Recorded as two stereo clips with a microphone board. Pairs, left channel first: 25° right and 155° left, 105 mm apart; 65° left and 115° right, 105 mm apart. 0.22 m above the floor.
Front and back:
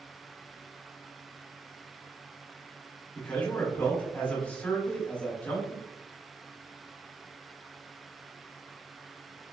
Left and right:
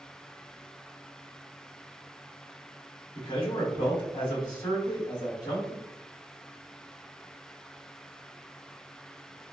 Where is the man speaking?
50° left, 1.4 m.